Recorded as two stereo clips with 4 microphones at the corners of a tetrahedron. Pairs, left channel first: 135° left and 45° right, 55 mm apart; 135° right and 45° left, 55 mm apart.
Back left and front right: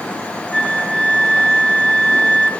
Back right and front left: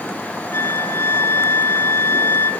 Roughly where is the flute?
Behind right.